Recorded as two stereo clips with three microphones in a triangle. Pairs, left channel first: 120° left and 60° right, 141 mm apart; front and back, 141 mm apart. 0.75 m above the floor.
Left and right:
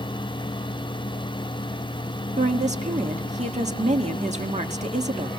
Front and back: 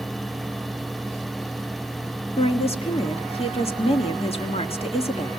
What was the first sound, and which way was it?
A woman speaking, 35° right.